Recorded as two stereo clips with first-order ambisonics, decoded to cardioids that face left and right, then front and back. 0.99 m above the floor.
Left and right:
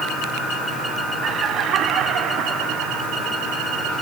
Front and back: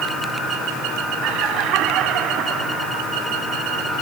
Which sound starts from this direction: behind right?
Laughter, at 1.2 s.